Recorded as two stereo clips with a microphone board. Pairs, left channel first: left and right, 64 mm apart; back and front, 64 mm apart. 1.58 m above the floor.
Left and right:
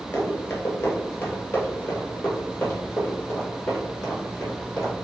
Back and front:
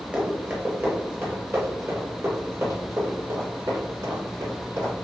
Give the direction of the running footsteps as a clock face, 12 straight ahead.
10 o'clock.